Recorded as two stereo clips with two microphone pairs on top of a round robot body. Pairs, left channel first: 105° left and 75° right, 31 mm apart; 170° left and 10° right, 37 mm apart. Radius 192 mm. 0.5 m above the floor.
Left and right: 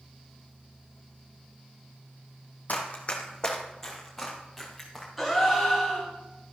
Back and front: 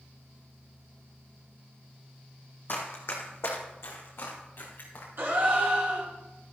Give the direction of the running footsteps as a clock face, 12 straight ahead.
7 o'clock.